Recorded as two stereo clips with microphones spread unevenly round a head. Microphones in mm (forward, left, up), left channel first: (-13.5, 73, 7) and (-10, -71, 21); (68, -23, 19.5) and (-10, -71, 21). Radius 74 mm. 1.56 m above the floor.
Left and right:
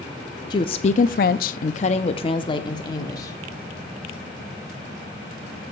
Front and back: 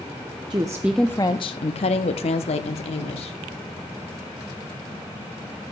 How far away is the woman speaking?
About 0.6 m.